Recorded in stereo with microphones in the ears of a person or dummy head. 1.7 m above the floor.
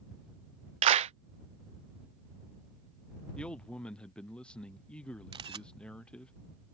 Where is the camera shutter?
25° right (ahead or behind).